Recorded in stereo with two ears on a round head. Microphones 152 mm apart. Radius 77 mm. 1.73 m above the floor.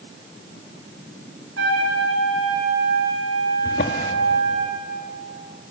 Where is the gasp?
I don't hear a gasp.